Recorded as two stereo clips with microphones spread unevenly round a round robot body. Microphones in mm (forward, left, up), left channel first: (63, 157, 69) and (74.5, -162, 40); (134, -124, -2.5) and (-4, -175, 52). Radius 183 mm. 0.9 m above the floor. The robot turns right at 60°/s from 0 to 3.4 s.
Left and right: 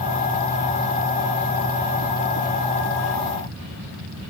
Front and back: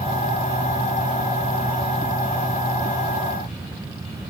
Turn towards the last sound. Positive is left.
No sound to turn to.